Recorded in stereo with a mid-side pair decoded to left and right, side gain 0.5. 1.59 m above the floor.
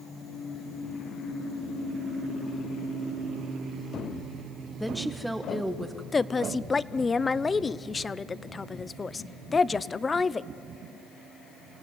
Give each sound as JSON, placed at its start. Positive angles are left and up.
{"t": 4.8, "sound": "a woman speaking", "azimuth_deg": 0, "distance_m": 1.1}
{"t": 6.1, "sound": "a woman speaking", "azimuth_deg": 30, "distance_m": 0.7}